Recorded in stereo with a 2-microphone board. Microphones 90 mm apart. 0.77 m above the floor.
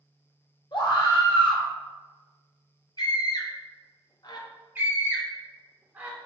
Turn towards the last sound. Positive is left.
turn(degrees=-25)  # may be behind; listen again after turning